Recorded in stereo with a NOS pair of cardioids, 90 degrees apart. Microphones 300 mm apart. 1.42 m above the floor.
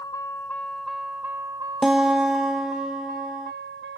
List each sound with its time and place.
0.0 s a vehicle: 10° left; by 4.0 s 40° right
1.8 s a guitar: straight ahead